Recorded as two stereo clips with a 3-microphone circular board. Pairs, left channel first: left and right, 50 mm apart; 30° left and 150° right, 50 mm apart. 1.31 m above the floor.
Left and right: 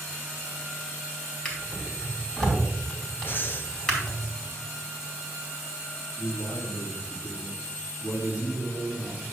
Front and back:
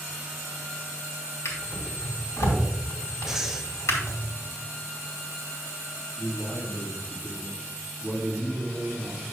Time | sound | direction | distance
1.4 | a drawer | 20° left | 2 m
3.3 | breathing | 135° left | 0.6 m
6.2 | a man speaking | 90° left | 2 m